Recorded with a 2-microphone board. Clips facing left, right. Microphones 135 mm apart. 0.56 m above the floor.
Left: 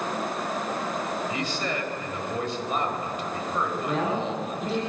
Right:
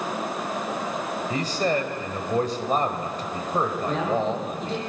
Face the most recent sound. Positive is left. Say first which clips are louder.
# right 2 dB
turn(degrees=5)  # may be behind; listen again after turning